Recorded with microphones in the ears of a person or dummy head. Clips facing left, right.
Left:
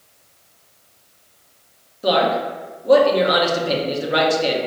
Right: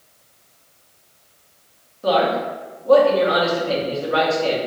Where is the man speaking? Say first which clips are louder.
Even; 25° left (ahead or behind), 1.0 m.